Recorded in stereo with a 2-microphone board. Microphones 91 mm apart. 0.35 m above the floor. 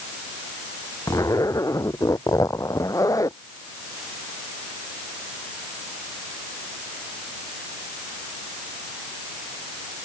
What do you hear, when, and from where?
1.1 s a zipper: 40° left (ahead or behind)